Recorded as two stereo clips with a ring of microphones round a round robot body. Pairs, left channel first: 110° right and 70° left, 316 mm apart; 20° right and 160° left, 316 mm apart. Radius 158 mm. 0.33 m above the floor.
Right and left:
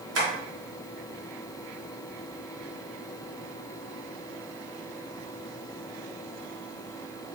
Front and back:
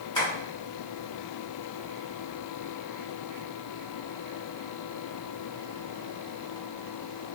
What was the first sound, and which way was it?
Tapping, 50° left.